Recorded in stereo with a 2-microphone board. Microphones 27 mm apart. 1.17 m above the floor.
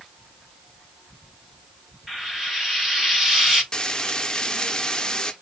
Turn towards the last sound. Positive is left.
turn(degrees=30)  # may be behind; listen again after turning